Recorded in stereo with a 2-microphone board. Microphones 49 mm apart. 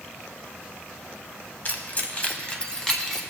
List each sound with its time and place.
1.6 s keys jangling: 40° left (ahead or behind), 0.9 m; by 3.2 s 5° left (ahead or behind), 1.4 m